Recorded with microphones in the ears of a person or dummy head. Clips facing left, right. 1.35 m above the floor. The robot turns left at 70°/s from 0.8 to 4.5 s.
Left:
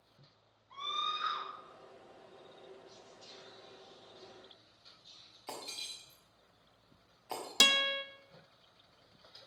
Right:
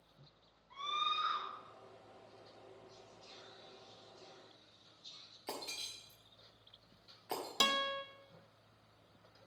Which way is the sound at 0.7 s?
175° right.